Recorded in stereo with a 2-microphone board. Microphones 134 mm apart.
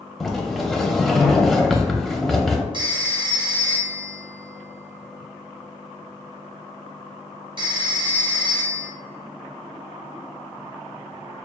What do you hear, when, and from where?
0.2 s a sliding door: centre (ahead or behind), 0.5 m
2.7 s a phone ringing: 40° right (ahead or behind), 0.9 m